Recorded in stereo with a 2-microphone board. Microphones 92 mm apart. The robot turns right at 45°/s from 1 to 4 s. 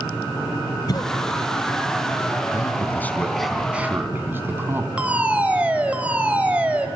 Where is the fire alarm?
15° right (ahead or behind), 3 m.